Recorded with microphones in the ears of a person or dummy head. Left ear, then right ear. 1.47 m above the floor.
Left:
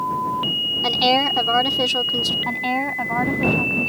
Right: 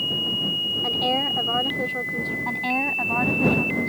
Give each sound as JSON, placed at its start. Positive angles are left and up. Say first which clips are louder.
{"t": 0.8, "sound": "a woman speaking", "louder": "left 7 dB", "side_deg": 85}
{"t": 2.5, "sound": "a woman speaking", "louder": "left 1 dB", "side_deg": 5}